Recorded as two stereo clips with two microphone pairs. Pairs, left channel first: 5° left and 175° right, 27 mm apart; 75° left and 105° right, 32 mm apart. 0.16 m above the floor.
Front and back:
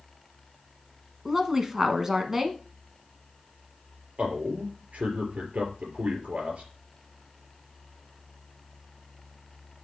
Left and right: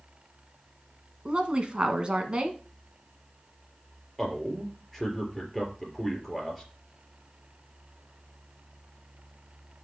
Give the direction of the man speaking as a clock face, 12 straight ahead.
7 o'clock.